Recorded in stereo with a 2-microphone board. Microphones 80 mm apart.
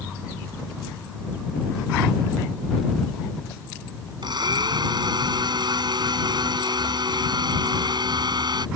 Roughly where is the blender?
Right.